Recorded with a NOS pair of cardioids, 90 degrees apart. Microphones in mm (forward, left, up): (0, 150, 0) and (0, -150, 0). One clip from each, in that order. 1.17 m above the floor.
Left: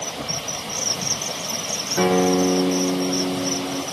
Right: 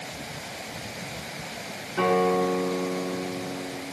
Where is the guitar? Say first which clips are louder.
Left 3 dB; 35° left, 0.7 m.